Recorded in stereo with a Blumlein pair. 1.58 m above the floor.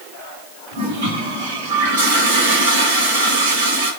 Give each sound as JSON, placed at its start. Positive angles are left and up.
{"t": 0.7, "sound": "a toilet flushing", "azimuth_deg": -60, "distance_m": 1.3}